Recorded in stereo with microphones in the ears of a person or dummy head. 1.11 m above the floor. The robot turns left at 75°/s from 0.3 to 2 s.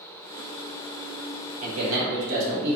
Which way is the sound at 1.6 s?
80° right.